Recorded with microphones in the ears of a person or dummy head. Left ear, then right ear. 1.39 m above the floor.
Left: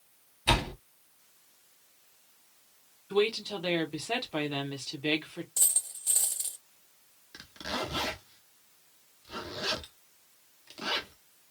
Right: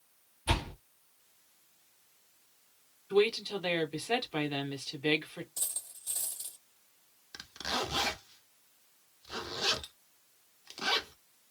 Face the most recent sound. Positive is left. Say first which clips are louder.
# right 1 dB
turn(degrees=-20)  # may be behind; listen again after turning